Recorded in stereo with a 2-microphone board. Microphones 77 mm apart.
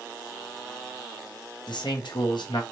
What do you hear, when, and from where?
1.7 s a man speaking: 80° left, 0.7 m